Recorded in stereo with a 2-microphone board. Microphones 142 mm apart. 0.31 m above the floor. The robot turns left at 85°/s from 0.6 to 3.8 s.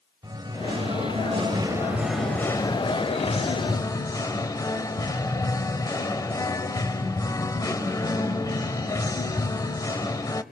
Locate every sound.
0.2 s singing: 45° right, 0.7 m; by 10.4 s 40° left, 0.7 m